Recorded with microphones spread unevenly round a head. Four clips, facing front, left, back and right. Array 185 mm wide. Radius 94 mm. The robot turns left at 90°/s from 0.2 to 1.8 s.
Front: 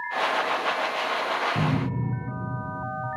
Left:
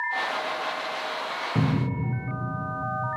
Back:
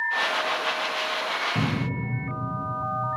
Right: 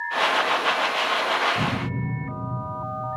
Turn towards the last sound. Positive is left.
turn(degrees=80)